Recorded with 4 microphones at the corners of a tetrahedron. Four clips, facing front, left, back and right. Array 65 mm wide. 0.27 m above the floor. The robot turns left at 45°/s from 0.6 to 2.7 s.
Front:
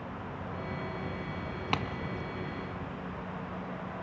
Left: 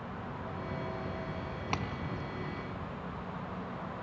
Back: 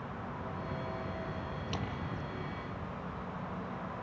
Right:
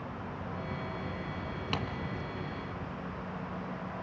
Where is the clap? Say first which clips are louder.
Even, front 9 dB; 15° left, 1.8 m; by 1.9 s 10° left, 1.8 m.